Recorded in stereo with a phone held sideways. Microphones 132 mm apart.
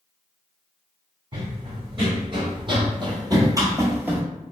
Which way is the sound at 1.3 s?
40° right (ahead or behind).